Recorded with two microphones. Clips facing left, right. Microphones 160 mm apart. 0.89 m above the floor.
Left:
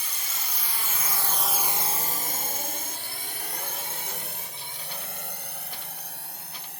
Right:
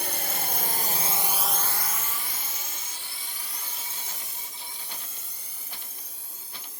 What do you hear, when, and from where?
0.0 s a drone: 60° right (ahead or behind); by 6.8 s 70° left (ahead or behind)